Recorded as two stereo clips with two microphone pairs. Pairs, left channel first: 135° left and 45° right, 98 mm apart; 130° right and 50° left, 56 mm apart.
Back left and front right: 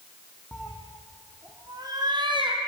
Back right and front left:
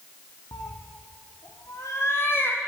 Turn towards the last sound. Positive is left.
turn(degrees=-75)